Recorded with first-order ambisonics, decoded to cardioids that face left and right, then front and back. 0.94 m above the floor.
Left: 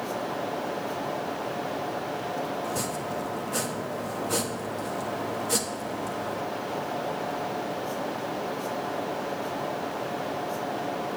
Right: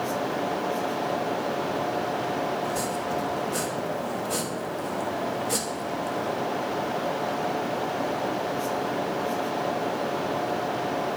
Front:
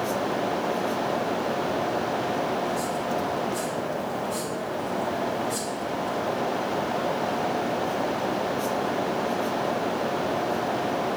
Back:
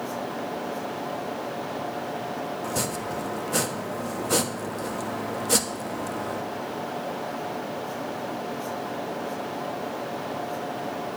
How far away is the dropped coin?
No dropped coin in this recording.